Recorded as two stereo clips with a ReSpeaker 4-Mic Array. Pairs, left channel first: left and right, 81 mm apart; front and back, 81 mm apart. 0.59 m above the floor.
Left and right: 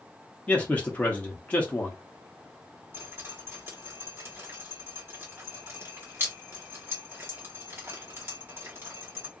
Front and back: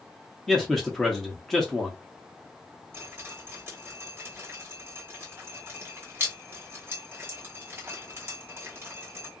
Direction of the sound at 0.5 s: 75° left.